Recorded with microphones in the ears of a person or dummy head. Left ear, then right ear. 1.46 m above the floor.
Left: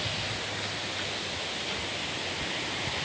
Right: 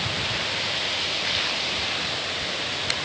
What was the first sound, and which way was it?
Only background noise.